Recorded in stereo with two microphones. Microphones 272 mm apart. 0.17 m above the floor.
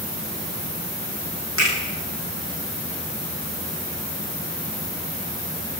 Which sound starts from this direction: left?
A finger snap, at 1.6 s.